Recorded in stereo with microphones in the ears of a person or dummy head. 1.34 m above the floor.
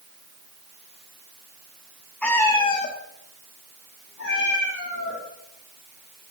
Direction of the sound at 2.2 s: 10° left (ahead or behind).